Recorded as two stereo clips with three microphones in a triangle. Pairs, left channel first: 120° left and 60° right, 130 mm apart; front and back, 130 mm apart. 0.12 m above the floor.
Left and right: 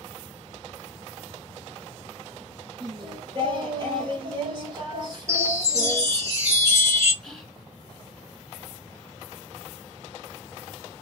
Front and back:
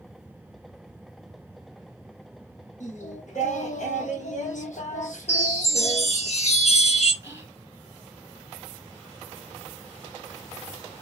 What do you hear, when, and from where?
2.8 s singing: 5° right, 2.5 m
5.3 s a chime: 5° left, 3 m
7.2 s whispering: 160° right, 1.3 m